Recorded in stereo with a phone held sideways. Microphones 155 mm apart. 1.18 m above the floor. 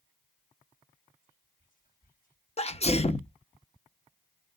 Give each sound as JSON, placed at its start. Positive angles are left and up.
{"t": 1.2, "sound": "whispering", "side_deg": 60, "distance_m": 4.5}
{"t": 2.6, "sound": "a sneeze", "side_deg": 40, "distance_m": 0.7}